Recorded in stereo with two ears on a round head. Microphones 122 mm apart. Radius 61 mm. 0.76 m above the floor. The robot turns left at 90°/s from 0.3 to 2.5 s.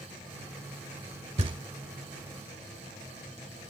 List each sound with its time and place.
1.4 s knocking: 50° right (ahead or behind), 1.5 m; by 1.6 s 30° right (ahead or behind), 1.5 m